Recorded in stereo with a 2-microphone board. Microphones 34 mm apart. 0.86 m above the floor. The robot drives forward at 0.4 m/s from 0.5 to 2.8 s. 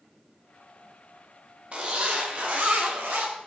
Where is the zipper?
45° right (ahead or behind), 1.0 m; by 3.3 s 65° right (ahead or behind), 0.8 m.